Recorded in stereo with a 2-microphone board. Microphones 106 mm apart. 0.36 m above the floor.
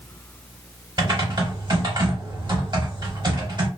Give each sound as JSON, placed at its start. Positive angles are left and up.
{"t": 1.0, "sound": "typing on a keyboard", "side_deg": -45, "distance_m": 1.0}